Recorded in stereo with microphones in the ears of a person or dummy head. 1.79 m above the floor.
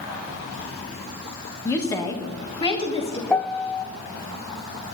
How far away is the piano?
About 0.5 m.